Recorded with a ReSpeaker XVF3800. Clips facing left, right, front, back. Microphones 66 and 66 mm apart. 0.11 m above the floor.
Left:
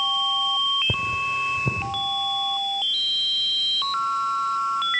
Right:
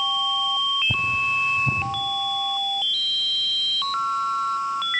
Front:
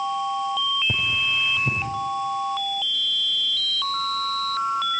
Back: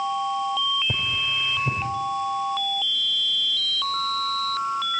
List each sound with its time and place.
0.9 s cutlery clinking: 85° left, 5.5 m